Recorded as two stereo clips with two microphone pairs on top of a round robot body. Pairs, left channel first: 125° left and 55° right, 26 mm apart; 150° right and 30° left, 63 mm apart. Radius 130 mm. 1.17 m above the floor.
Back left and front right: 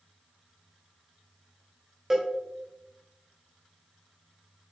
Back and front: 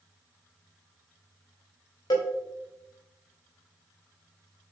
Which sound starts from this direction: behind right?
A cowbell, at 2.1 s.